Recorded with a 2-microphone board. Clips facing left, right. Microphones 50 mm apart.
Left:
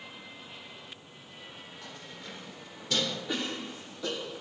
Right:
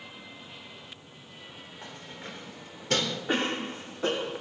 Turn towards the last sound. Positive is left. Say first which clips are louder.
# right 6 dB
turn(degrees=-45)  # may be behind; listen again after turning